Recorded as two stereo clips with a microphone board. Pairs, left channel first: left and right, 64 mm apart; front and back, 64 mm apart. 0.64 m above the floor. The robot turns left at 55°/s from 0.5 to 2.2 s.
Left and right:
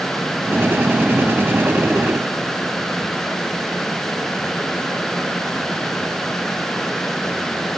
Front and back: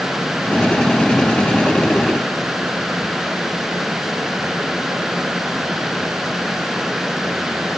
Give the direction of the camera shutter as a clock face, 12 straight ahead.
No camera shutter in this recording.